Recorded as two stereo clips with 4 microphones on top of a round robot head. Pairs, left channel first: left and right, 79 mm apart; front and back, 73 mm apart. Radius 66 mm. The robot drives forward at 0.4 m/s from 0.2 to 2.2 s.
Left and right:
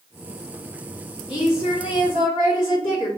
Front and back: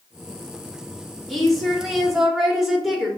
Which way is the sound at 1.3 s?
90° left.